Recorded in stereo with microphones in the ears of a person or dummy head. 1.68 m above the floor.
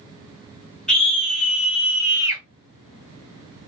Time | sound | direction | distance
0.9 | a scream | 10° left (ahead or behind) | 2.0 m